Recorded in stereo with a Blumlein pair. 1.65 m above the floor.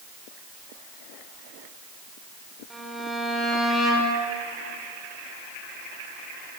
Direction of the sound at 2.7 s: 5° right.